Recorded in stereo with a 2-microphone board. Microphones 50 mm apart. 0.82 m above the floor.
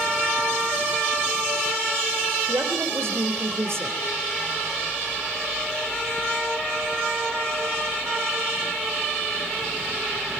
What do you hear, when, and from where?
2.5 s a woman speaking: 65° right (ahead or behind), 4 m